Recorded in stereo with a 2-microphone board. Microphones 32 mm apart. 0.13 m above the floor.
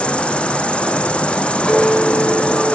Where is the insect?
35° left (ahead or behind), 0.8 m.